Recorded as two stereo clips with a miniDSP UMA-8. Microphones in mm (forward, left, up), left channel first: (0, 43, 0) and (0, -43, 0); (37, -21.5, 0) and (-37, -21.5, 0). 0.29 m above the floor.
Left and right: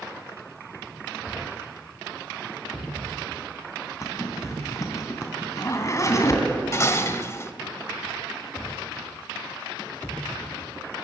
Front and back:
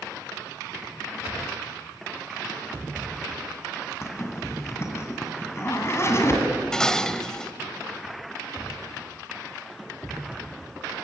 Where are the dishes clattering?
70° left, 0.9 m.